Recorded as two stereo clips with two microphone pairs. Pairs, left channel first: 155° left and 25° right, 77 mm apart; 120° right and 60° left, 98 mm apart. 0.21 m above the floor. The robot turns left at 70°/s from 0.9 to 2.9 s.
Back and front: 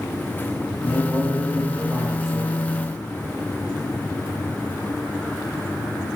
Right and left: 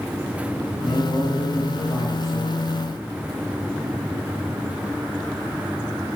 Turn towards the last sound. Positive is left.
turn(degrees=-150)